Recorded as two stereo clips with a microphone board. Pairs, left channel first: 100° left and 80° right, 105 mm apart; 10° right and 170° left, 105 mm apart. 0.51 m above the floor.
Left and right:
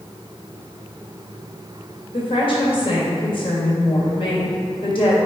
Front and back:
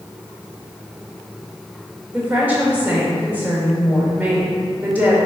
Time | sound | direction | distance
2.1 | a woman speaking | 100° left | 2 m